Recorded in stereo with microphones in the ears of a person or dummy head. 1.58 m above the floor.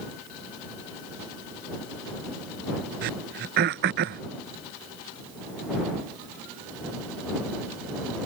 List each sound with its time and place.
3.0 s throat clearing: 55° right (ahead or behind)